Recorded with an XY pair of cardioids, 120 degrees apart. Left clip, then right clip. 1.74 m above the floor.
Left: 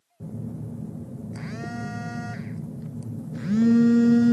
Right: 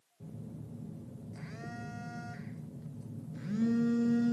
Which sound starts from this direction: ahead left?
A phone buzzing, at 0.2 s.